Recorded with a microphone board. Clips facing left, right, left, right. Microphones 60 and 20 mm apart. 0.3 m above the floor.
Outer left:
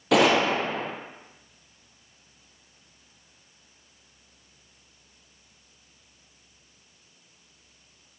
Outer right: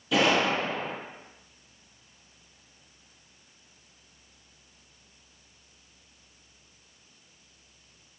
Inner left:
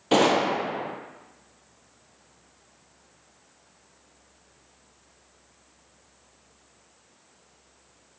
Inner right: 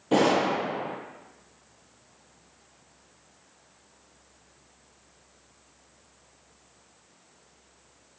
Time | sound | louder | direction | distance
0.1 | a gunshot | outer left 4 dB, inner left 2 dB | 70° left (ahead or behind) | 1.4 m